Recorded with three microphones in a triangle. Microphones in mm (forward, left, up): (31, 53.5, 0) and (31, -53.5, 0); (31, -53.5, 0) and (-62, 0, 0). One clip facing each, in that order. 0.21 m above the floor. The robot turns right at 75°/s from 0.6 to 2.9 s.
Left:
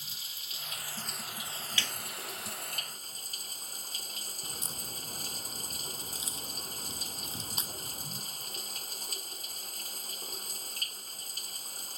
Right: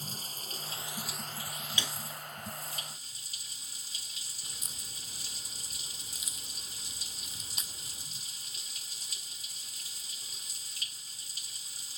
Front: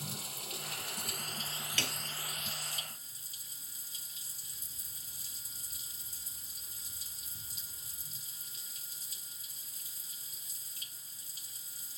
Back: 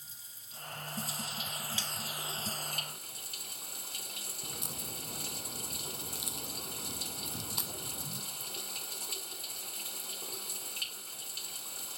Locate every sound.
0.0 s running water: 40° right; by 12.0 s 130° left
1.8 s a snare drum: 20° right; by 1.9 s 5° right
4.4 s a crack: 150° left